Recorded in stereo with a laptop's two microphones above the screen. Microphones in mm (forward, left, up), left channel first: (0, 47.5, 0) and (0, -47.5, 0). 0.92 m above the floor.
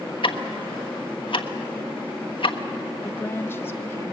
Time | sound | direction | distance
0.2 | ticking | 65° left (ahead or behind) | 1.2 m
3.0 | a woman speaking | 25° left (ahead or behind) | 0.9 m